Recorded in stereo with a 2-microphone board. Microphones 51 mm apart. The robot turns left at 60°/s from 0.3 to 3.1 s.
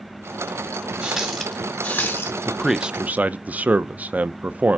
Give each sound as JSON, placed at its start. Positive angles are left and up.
{"t": 1.0, "sound": "a running tap", "azimuth_deg": -155, "distance_m": 1.7}
{"t": 2.5, "sound": "a man speaking", "azimuth_deg": 10, "distance_m": 0.5}